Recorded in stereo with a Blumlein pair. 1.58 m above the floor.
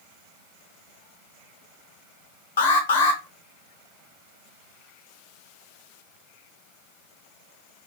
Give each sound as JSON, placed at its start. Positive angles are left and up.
{"t": 2.6, "sound": "an alarm", "azimuth_deg": 60, "distance_m": 0.7}